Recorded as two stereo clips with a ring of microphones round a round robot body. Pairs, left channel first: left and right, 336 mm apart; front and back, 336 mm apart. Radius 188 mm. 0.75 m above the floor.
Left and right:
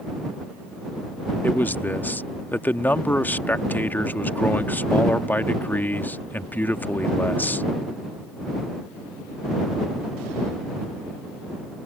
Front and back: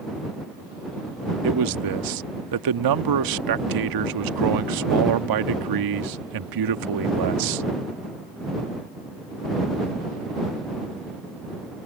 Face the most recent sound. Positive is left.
turn(degrees=175)